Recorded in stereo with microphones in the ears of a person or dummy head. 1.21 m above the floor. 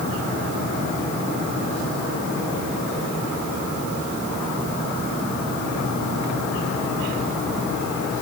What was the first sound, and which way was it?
Only background noise.